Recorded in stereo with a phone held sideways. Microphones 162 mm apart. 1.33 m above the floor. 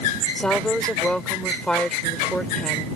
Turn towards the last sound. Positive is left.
turn(degrees=5)  # may be behind; listen again after turning